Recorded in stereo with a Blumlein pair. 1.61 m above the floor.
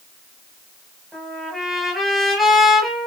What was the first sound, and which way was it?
A trumpet, 5° right.